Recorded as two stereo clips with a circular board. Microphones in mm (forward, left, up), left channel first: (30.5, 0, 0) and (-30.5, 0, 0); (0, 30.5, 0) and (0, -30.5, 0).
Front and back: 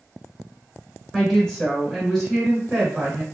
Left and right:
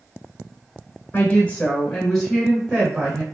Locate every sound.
1.1 s a woman speaking: 75° left, 1.4 m; by 3.2 s 105° right, 1.5 m